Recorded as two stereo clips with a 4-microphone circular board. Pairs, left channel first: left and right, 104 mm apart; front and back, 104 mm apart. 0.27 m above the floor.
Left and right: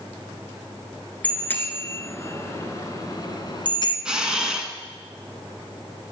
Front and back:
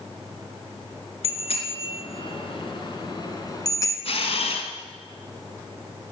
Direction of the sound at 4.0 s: 5° right.